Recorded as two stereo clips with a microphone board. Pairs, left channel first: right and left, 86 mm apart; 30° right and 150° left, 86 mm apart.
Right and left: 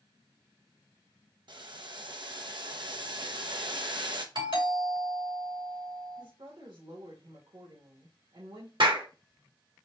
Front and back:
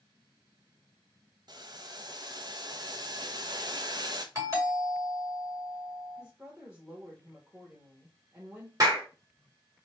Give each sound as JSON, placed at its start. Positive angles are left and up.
{"t": 1.5, "sound": "boiling", "azimuth_deg": 115, "distance_m": 0.7}
{"t": 4.3, "sound": "a doorbell", "azimuth_deg": 95, "distance_m": 2.5}
{"t": 6.2, "sound": "a woman speaking", "azimuth_deg": 70, "distance_m": 1.5}
{"t": 8.8, "sound": "a clap", "azimuth_deg": 100, "distance_m": 1.8}